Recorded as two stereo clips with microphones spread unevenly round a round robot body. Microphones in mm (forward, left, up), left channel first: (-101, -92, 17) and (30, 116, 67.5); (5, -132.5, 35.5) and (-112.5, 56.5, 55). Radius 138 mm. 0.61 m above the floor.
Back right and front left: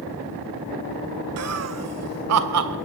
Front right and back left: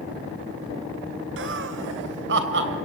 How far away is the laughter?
About 2 m.